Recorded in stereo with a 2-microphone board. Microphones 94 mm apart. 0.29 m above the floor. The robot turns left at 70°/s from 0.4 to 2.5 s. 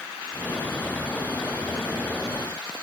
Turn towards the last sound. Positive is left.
No sound to turn to.